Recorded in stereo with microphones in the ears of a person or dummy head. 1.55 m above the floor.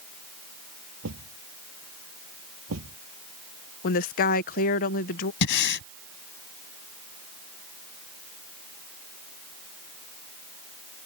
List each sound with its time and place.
1.0 s a thud: 80° right
3.8 s a woman speaking: 50° left (ahead or behind)
5.4 s breathing: 65° left (ahead or behind)